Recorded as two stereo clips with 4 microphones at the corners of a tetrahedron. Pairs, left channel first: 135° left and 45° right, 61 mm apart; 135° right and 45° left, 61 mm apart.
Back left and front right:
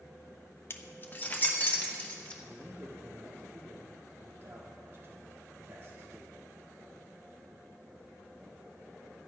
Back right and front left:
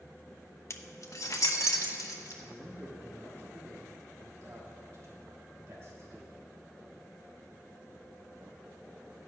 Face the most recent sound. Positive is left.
turn(degrees=5)